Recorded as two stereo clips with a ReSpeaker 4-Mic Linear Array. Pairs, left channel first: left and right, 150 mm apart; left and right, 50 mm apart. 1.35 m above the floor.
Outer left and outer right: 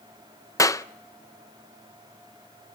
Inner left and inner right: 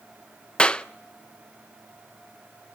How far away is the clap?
About 0.6 m.